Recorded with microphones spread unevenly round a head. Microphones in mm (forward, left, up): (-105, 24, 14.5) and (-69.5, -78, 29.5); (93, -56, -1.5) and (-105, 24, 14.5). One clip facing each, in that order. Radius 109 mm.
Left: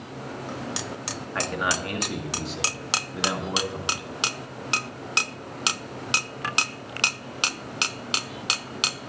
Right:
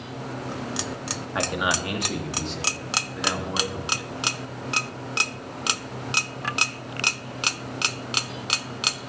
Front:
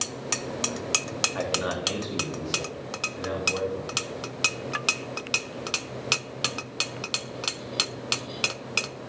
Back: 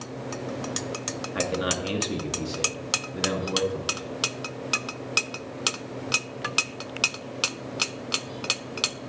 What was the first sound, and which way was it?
A man speaking, 145° right.